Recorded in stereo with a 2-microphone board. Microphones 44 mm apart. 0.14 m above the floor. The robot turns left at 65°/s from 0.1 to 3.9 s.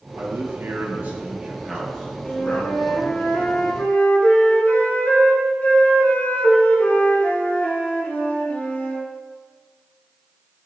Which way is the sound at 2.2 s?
160° left.